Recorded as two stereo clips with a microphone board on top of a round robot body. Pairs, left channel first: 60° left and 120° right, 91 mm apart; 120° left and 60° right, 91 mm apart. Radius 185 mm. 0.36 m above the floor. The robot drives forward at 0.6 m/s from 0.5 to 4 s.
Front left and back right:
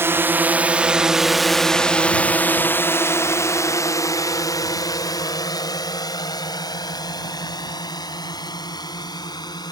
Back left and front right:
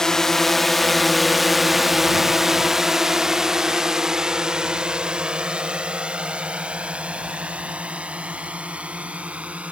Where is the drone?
160° right; by 9.7 s 15° left.